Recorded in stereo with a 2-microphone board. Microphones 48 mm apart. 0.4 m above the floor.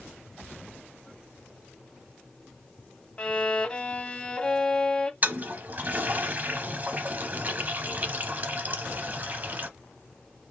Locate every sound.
3.2 s a violin: 20° left (ahead or behind), 0.6 m
5.2 s a toilet flushing: 40° right (ahead or behind), 0.6 m